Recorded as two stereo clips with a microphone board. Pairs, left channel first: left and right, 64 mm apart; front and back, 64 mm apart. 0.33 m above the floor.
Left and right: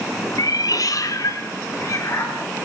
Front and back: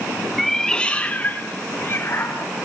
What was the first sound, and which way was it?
A cat meowing, 90° left.